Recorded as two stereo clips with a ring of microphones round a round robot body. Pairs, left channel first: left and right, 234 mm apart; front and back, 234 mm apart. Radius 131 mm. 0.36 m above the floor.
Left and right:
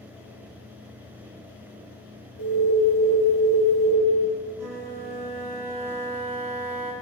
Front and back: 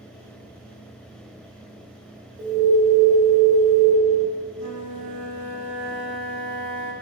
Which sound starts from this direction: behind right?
A flute, at 4.5 s.